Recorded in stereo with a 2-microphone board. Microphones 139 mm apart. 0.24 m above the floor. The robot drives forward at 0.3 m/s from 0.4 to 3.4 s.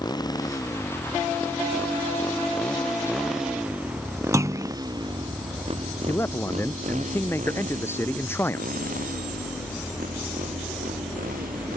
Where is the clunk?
20° right (ahead or behind).